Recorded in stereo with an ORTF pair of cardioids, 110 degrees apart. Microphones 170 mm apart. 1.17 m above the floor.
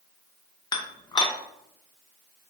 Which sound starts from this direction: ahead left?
Dishes clattering, at 0.7 s.